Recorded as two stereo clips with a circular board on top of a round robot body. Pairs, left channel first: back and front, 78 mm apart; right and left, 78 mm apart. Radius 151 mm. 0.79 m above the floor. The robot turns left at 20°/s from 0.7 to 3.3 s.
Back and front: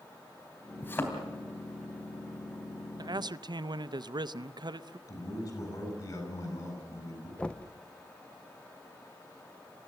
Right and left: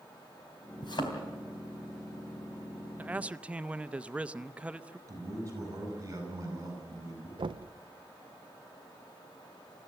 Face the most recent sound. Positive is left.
turn(degrees=105)